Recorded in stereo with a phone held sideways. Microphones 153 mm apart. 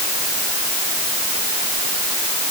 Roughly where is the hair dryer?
I don't hear a hair dryer.